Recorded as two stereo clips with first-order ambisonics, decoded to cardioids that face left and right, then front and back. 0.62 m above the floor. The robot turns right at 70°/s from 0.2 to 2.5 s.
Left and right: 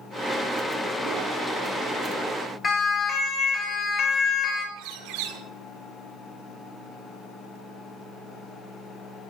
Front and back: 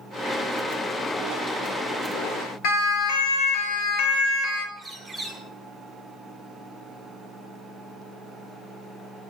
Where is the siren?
20° left, 4.5 m; by 4.7 s 35° left, 3 m.